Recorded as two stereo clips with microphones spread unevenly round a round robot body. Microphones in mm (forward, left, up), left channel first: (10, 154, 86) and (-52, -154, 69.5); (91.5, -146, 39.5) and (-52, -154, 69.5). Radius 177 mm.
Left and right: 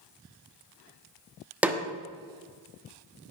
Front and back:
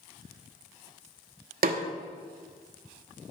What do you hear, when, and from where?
1.6 s a snare drum: 175° left, 1.2 m